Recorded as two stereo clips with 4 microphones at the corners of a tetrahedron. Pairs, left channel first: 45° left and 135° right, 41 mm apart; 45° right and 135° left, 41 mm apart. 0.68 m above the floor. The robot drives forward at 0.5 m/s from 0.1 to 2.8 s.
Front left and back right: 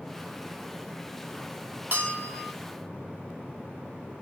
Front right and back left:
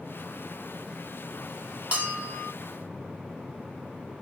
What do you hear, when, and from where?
1.9 s a bell: straight behind, 2 m